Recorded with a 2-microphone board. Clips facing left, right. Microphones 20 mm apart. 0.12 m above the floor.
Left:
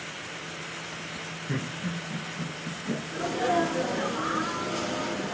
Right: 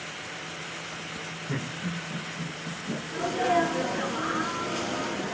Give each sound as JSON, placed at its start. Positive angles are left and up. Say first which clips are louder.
{"t": 1.5, "sound": "laughter", "louder": "left 1 dB", "side_deg": 30, "distance_m": 1.9}
{"t": 3.1, "sound": "a sneeze", "louder": "right 2 dB", "side_deg": -5, "distance_m": 1.7}